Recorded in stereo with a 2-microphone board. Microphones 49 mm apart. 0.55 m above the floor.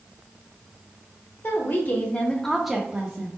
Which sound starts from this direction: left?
A woman speaking, at 1.4 s.